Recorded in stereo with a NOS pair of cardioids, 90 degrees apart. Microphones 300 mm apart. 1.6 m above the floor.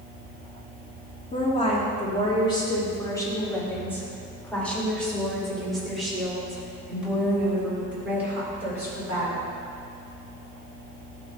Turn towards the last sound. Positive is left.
turn(degrees=-5)